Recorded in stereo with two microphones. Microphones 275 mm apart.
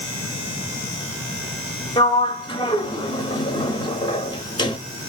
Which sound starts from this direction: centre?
A sliding door, at 2.0 s.